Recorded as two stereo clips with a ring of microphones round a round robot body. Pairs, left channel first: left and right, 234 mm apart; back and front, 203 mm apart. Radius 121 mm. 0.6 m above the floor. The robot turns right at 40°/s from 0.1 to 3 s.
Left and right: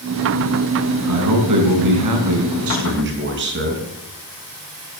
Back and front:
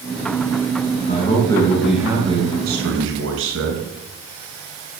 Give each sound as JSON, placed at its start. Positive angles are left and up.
{"t": 1.1, "sound": "a man speaking", "azimuth_deg": -120, "distance_m": 5.5}